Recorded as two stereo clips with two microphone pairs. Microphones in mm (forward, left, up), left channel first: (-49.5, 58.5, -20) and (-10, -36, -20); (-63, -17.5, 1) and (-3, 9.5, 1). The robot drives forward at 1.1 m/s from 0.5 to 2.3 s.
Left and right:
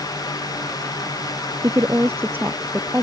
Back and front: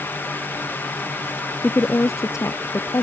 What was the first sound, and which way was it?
A woman speaking, 110° right.